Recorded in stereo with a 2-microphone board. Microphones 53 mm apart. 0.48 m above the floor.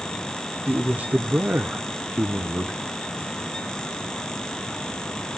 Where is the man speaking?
30° right (ahead or behind), 0.7 m.